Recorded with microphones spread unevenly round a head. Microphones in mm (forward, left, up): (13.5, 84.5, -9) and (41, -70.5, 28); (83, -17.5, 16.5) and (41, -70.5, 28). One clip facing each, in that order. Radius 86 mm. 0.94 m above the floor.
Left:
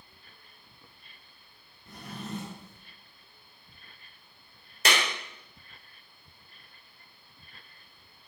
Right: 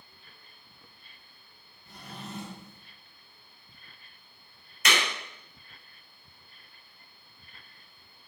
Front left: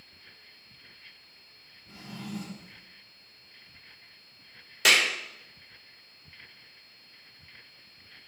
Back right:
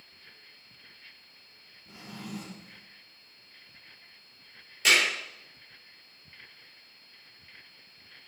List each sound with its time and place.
1.9 s a drawer: 150° left, 4.5 m
4.8 s a clap: 45° left, 3.5 m